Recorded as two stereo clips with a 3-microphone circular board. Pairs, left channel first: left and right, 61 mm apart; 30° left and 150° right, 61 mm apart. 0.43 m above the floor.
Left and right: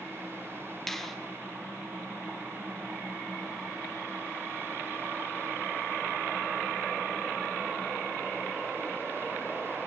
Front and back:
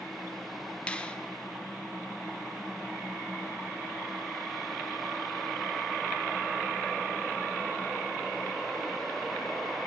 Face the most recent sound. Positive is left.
turn(degrees=15)